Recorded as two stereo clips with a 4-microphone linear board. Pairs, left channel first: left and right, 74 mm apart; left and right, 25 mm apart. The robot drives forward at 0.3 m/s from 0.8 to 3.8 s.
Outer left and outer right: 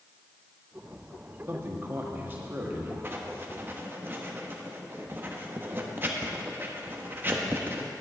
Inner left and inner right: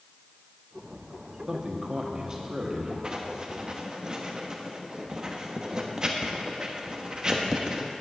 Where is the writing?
30° right (ahead or behind), 0.9 m.